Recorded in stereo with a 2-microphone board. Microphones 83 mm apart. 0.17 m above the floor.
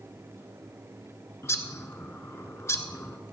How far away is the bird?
About 0.8 m.